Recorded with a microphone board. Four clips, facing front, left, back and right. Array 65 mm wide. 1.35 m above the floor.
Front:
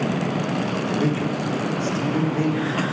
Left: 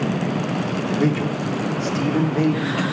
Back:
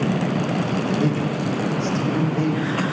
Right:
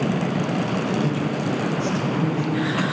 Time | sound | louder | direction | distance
1.0 | a man speaking | left 2 dB, back 1 dB | 85° left | 3.5 m